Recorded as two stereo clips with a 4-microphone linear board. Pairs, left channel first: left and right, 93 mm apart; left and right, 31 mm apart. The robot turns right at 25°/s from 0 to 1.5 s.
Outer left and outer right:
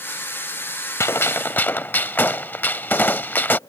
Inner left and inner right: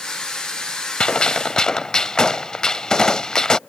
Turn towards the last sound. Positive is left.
turn(degrees=20)  # may be behind; listen again after turning